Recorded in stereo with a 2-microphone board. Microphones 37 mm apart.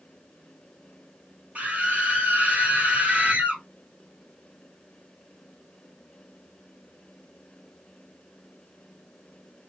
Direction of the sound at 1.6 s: 40° right (ahead or behind).